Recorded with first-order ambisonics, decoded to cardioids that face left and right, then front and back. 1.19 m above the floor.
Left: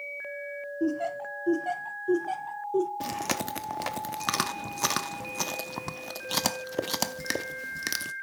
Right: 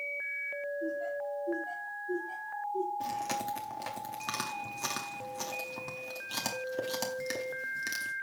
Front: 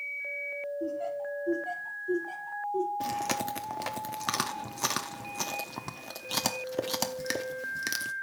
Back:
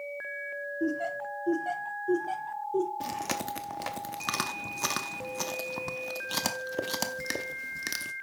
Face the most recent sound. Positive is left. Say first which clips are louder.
# left 3 dB, front 2 dB
turn(degrees=85)